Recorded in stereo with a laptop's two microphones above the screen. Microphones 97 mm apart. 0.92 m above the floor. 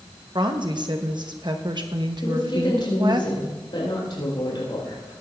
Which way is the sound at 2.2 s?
55° left (ahead or behind).